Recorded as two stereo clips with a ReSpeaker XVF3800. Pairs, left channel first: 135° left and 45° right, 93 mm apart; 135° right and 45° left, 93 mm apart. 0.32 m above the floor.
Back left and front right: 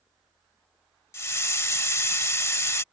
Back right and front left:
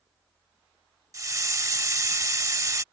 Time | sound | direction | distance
1.1 | a hiss | 85° left | ?